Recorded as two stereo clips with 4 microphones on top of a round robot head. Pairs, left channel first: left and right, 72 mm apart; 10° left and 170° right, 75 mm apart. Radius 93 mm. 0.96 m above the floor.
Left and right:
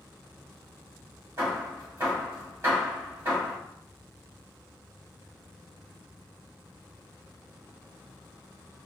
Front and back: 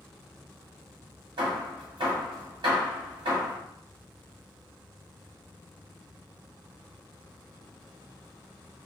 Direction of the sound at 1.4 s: 145° right.